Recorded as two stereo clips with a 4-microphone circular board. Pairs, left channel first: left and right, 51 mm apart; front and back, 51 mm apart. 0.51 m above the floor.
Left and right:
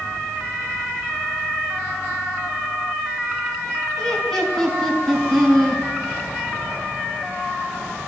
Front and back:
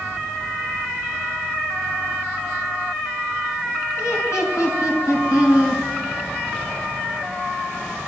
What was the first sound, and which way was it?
Laughter, 10° left.